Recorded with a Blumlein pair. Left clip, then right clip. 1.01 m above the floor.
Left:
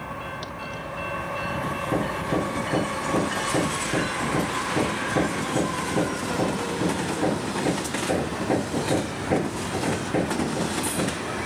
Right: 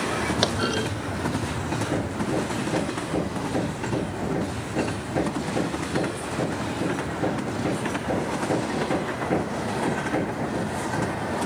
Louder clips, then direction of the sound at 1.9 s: Left 3 dB; 5° left.